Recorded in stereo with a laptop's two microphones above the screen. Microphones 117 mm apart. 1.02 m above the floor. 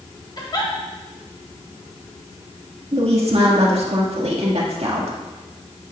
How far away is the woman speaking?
About 1.6 m.